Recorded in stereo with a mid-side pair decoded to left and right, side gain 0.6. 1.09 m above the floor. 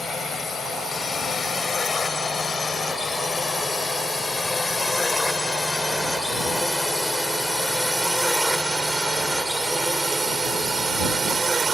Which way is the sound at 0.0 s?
35° left.